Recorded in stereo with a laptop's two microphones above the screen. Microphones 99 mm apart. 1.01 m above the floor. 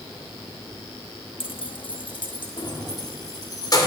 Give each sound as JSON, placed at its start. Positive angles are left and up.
{"t": 1.4, "sound": "keys jangling", "side_deg": 70, "distance_m": 0.6}